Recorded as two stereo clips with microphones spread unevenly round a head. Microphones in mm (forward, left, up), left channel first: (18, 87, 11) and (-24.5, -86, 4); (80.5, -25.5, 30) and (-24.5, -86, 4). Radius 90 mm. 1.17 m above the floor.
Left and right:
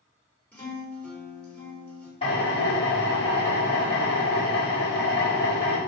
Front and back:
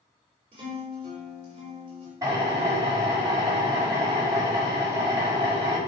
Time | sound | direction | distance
0.5 | a guitar | 155° left | 3.5 m
2.2 | a drill | 135° left | 5 m